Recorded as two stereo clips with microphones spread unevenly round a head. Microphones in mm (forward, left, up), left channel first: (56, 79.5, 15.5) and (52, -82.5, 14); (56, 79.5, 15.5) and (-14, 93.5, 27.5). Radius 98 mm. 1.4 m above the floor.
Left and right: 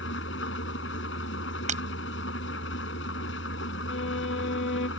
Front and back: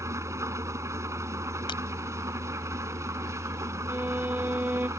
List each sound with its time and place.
0.0 s an engine running: 125° left
1.7 s breaking glass: 50° right
3.9 s a violin: 110° left